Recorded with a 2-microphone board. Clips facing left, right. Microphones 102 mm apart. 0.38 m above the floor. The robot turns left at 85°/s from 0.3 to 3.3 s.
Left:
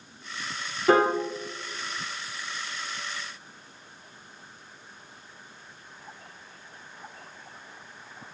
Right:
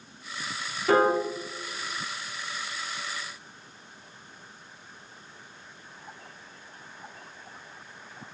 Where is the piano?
40° left (ahead or behind), 1.3 m; by 1.2 s 15° left (ahead or behind), 1.3 m.